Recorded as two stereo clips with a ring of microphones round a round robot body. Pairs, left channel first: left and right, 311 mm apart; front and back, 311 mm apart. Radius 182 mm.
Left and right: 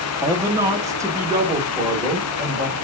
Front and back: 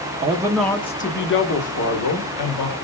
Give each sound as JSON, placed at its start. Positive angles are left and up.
{"t": 0.2, "sound": "a man speaking", "azimuth_deg": -160, "distance_m": 0.8}